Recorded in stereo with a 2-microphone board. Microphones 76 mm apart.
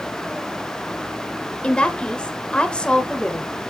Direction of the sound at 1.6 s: 15° left (ahead or behind).